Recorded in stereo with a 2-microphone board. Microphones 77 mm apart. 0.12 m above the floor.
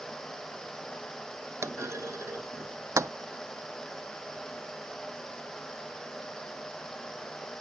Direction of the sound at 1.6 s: 40° right (ahead or behind).